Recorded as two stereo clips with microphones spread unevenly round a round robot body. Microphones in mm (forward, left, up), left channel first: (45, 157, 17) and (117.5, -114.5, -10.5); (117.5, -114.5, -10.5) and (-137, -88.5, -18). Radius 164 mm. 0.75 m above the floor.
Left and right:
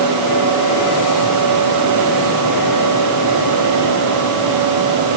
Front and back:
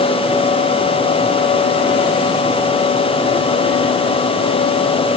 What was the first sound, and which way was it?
Only background noise.